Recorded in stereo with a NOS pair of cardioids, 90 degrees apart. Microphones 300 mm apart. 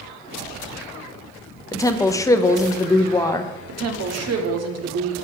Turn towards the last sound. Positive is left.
turn(degrees=-60)